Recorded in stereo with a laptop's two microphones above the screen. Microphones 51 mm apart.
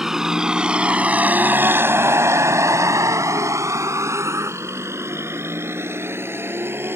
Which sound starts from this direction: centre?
A vehicle, at 0.0 s.